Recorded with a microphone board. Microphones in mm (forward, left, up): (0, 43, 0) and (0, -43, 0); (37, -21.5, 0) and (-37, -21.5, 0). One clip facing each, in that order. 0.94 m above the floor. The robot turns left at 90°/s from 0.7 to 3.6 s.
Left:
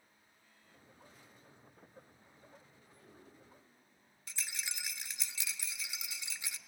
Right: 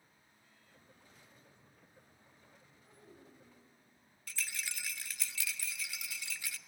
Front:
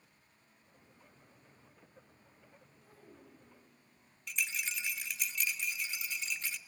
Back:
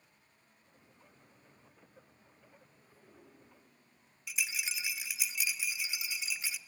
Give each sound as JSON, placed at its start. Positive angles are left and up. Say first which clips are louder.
{"t": 2.8, "sound": "a child speaking", "louder": "right 1 dB, front 4 dB", "azimuth_deg": -10, "distance_m": 4.5}
{"t": 4.3, "sound": "a rattle", "louder": "right 2 dB, even", "azimuth_deg": 110, "distance_m": 0.6}